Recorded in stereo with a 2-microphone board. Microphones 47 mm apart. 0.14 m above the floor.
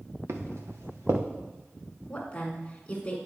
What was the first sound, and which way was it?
Footsteps, 85° right.